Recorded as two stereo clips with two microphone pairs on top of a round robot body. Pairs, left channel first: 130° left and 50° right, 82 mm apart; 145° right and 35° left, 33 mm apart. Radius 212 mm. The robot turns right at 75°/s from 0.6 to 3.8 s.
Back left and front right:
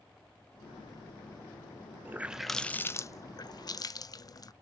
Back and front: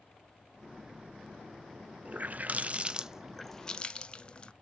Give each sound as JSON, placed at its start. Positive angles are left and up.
{"t": 2.0, "sound": "a running tap", "azimuth_deg": 15, "distance_m": 0.5}